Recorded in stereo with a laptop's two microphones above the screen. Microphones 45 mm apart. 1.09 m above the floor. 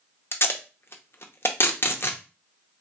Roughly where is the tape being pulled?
Left.